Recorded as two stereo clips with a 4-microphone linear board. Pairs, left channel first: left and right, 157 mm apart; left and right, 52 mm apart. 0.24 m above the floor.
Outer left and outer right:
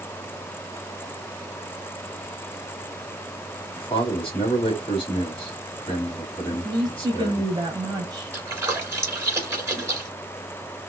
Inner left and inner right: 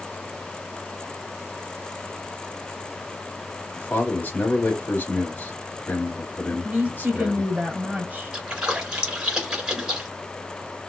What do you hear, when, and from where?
3.8 s a man speaking: 35° left (ahead or behind), 1.7 m
6.5 s a woman speaking: 25° right (ahead or behind), 1.6 m
8.3 s a splash: 15° right (ahead or behind), 1.9 m